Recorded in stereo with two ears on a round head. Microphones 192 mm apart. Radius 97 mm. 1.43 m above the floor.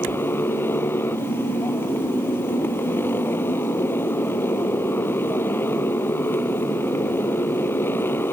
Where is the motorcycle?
10° left (ahead or behind).